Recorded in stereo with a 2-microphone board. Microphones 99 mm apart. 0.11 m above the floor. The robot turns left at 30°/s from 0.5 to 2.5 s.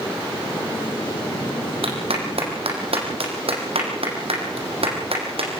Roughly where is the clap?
Right.